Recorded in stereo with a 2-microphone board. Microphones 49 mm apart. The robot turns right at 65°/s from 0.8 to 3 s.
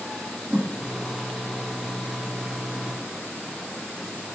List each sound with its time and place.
0.5 s a whoosh: 30° right (ahead or behind), 1.1 m